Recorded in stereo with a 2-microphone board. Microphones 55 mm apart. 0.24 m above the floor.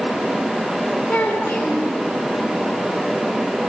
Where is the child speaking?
20° left (ahead or behind), 2.0 m.